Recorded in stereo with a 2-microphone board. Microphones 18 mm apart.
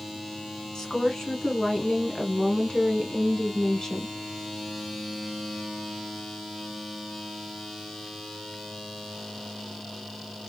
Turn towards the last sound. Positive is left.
turn(degrees=30)  # may be behind; listen again after turning